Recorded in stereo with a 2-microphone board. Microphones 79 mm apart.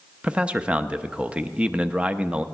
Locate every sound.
0.2 s a man speaking: 15° right (ahead or behind), 0.5 m